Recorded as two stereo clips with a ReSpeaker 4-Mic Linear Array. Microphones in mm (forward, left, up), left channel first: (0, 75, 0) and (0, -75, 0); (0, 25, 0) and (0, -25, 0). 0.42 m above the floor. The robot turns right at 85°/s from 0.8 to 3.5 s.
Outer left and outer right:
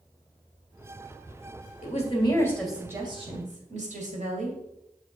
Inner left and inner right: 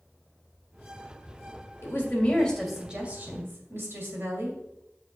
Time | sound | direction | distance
1.8 | a woman speaking | 110° left | 2 m